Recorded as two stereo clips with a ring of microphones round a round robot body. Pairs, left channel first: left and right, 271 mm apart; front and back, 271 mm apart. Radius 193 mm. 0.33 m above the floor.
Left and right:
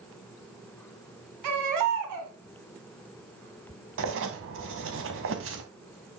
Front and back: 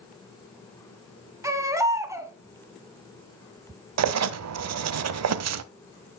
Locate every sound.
1.4 s a baby crying: 100° right, 1.8 m
4.0 s writing: 145° right, 0.6 m